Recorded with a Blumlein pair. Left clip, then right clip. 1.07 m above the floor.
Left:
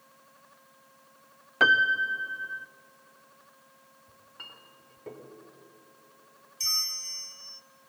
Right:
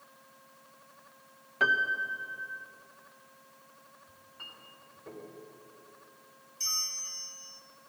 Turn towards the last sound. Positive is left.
turn(degrees=20)